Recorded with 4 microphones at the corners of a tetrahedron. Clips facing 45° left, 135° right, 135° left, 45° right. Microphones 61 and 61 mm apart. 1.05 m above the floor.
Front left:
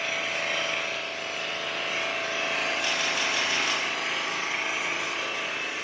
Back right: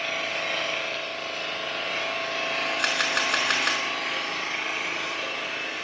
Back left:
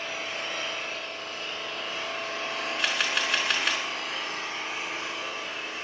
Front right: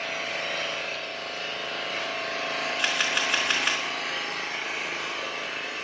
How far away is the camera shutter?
About 4 m.